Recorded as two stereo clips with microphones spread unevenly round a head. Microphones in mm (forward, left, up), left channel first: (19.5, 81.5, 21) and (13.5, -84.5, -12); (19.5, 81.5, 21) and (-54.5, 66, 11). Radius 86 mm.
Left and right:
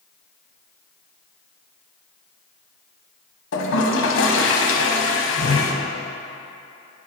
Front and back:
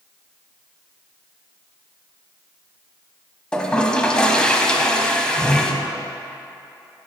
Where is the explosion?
I don't hear an explosion.